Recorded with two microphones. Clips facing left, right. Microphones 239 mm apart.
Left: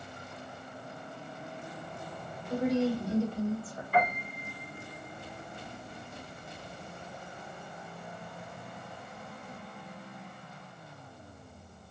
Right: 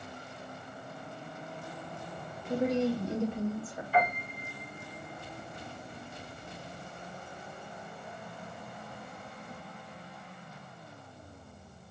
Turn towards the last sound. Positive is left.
turn(degrees=60)  # may be behind; listen again after turning